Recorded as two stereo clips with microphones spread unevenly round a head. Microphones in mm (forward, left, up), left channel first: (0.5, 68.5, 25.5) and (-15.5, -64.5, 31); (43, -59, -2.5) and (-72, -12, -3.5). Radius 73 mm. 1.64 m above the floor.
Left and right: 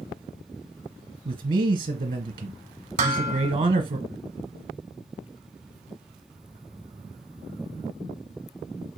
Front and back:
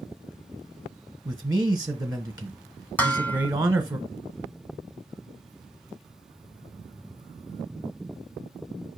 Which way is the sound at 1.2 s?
130° right.